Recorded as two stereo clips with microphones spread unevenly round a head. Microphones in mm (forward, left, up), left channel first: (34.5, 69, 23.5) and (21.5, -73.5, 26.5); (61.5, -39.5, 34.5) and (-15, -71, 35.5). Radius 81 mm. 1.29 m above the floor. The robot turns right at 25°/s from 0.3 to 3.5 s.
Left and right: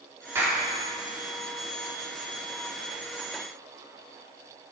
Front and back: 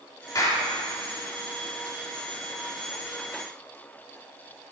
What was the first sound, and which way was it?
A clap, 25° right.